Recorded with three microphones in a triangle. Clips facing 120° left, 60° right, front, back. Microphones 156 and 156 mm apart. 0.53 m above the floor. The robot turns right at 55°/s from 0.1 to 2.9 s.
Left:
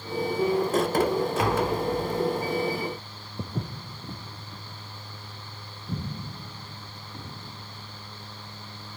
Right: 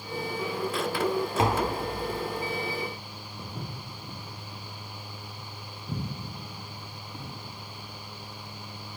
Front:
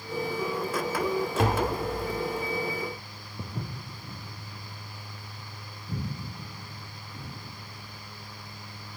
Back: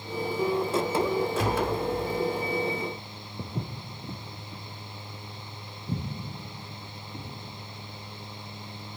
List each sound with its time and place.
1.4 s tapping: straight ahead, 0.6 m; by 1.8 s 25° left, 0.6 m
3.4 s footsteps: 115° left, 0.6 m; by 7.3 s 150° right, 3 m